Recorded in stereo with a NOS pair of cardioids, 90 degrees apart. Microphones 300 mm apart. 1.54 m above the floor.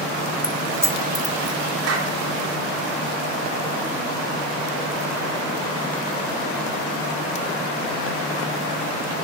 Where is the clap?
55° right, 3 m.